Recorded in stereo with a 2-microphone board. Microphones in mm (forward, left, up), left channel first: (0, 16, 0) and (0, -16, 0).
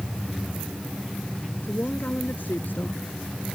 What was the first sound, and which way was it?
A woman speaking, 75° left (ahead or behind).